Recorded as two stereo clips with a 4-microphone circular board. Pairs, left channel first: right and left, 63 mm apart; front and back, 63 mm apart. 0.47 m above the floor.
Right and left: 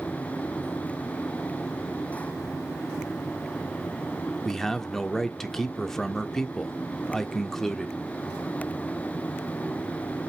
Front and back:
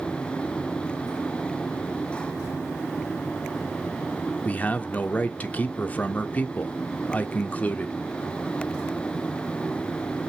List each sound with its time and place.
4.5 s a man speaking: 15° right, 0.7 m